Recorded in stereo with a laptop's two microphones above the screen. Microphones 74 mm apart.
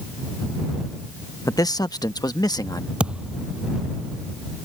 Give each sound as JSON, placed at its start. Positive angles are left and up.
{"t": 1.4, "sound": "a man speaking", "side_deg": 50}
{"t": 3.0, "sound": "a thud", "side_deg": -15}